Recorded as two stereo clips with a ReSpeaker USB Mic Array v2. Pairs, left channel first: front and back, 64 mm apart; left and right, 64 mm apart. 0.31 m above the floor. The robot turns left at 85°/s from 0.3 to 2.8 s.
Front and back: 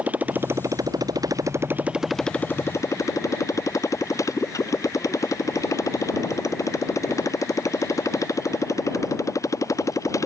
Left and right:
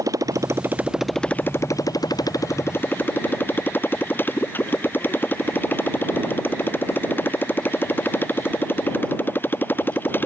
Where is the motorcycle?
115° right; by 10.3 s 30° left.